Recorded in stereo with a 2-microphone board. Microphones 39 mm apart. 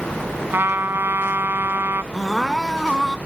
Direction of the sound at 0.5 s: 80° right.